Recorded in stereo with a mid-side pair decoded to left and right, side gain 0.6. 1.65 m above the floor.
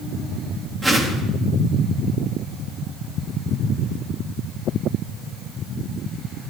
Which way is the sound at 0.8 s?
15° right.